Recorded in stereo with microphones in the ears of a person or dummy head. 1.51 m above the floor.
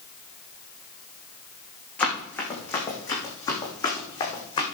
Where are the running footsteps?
10° left (ahead or behind), 5.5 m; by 4.7 s 25° left (ahead or behind), 5.5 m.